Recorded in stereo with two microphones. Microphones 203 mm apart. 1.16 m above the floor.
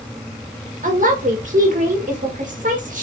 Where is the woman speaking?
40° right (ahead or behind), 1.5 m.